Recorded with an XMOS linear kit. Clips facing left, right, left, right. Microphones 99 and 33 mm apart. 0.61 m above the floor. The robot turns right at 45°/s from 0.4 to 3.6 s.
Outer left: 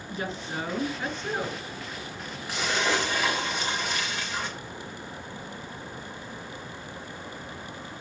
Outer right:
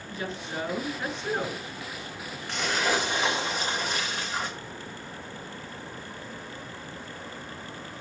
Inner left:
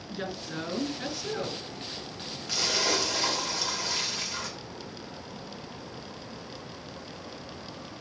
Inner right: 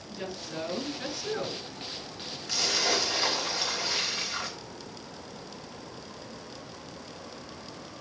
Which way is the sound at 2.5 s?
170° left.